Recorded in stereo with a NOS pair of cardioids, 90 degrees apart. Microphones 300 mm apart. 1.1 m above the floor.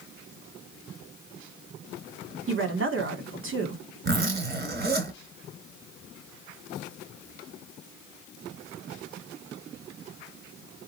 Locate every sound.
2.5 s a woman speaking: 45° right, 2 m
4.0 s a zipper: 35° right, 3 m